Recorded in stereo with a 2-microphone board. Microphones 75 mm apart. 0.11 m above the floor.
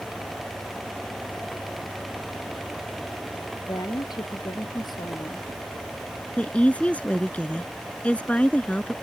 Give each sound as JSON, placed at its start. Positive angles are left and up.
{"t": 3.7, "sound": "a woman speaking", "side_deg": 65}
{"t": 6.4, "sound": "a woman speaking", "side_deg": 15}